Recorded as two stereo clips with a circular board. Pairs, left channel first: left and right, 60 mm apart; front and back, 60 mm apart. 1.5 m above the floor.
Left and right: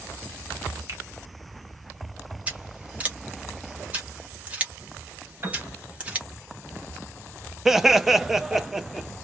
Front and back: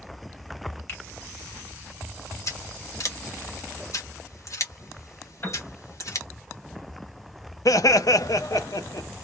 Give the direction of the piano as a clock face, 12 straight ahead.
1 o'clock.